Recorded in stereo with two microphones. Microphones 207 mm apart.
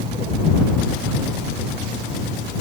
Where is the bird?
No bird in this recording.